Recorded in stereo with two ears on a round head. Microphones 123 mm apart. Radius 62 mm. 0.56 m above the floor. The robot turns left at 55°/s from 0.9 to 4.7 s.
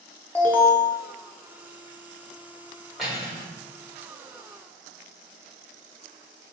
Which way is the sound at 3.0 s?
Centre (ahead or behind).